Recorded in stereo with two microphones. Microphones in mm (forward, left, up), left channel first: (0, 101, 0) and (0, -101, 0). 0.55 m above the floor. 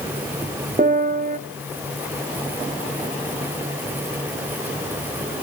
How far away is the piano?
About 0.9 m.